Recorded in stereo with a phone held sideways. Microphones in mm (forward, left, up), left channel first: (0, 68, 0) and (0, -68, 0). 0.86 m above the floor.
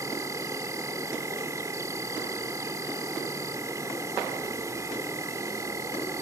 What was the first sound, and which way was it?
An insect, 25° right (ahead or behind).